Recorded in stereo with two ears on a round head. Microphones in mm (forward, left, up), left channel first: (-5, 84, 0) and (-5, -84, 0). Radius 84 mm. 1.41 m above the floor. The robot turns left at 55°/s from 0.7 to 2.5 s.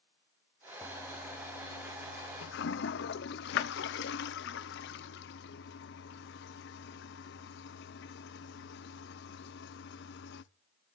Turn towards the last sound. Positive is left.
turn(degrees=60)  # may be behind; listen again after turning